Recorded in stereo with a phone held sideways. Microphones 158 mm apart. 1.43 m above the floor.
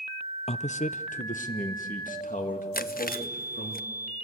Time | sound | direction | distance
0.5 | a man speaking | 45° left (ahead or behind) | 0.6 m
2.7 | chewing | 70° left (ahead or behind) | 0.6 m